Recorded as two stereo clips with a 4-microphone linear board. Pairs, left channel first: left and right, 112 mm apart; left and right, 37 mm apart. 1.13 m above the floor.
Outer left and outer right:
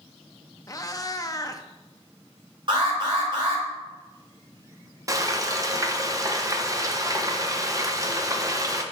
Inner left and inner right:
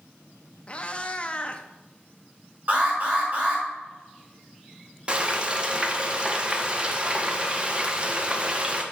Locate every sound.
0.7 s a cat meowing: 30° left (ahead or behind), 0.6 m
2.7 s an alarm: 45° right (ahead or behind), 3.5 m
5.1 s frying: 30° right (ahead or behind), 0.8 m